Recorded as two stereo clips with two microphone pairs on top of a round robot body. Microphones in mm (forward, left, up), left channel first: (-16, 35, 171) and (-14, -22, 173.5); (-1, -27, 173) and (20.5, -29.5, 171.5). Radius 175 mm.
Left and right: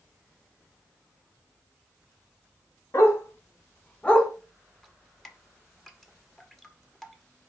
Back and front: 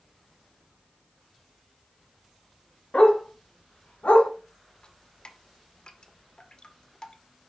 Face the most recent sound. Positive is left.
turn(degrees=170)